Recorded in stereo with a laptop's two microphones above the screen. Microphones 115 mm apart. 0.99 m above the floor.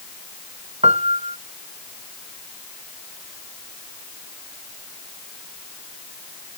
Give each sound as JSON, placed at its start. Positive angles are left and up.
{"t": 0.8, "sound": "a piano", "side_deg": -70}